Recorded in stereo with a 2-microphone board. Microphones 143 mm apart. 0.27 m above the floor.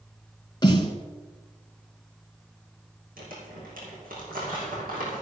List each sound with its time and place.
0.6 s a snare drum: 30° left (ahead or behind), 1.6 m
3.2 s crumpling: 85° right, 5 m